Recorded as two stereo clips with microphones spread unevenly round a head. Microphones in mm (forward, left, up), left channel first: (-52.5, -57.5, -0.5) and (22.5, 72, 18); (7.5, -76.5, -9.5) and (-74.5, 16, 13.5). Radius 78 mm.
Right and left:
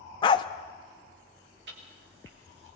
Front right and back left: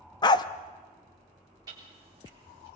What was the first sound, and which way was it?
A dog barking, 80° right.